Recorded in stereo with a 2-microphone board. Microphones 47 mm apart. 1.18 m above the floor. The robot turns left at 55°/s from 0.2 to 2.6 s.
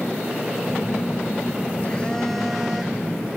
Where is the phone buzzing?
95° left, 0.8 m; by 3.3 s 10° right, 0.8 m.